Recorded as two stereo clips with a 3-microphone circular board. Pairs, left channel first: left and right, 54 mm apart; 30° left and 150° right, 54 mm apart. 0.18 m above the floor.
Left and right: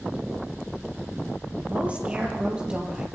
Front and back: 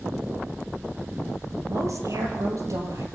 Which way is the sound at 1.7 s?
155° right.